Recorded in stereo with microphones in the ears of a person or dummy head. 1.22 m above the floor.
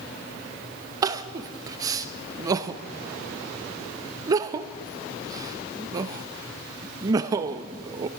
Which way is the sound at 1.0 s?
20° right (ahead or behind).